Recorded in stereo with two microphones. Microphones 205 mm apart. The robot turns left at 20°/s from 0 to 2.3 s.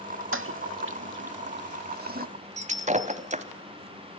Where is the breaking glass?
35° right (ahead or behind), 1.2 m.